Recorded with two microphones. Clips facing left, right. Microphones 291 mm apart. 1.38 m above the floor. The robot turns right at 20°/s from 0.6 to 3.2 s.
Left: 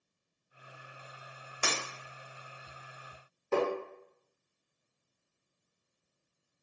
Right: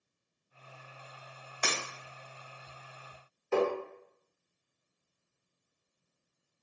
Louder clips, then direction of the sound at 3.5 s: Right 2 dB; 45° left (ahead or behind).